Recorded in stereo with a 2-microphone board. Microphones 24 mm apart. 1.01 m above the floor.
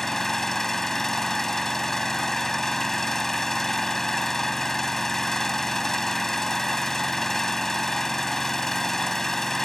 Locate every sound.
0.0 s an engine running: 10° left (ahead or behind)